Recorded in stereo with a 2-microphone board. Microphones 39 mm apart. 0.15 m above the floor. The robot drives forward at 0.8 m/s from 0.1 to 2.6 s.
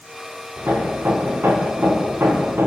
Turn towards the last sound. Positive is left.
turn(degrees=-70)  # may be behind; listen again after turning